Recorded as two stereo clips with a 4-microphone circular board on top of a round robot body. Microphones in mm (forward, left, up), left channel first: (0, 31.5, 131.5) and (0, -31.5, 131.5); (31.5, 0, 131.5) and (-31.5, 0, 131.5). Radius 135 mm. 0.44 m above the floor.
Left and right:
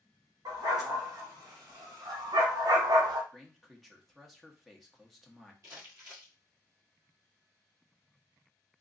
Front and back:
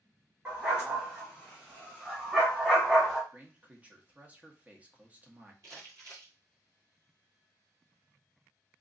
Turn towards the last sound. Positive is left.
turn(degrees=-135)